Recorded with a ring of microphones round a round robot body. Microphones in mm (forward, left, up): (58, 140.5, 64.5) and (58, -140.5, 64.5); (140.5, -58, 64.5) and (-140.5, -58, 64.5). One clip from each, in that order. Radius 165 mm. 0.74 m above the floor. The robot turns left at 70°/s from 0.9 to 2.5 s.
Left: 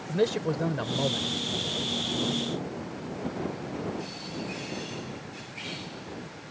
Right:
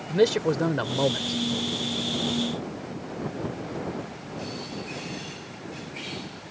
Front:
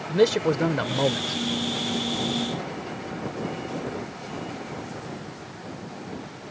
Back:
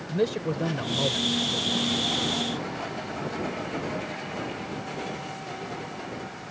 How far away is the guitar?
No guitar in this recording.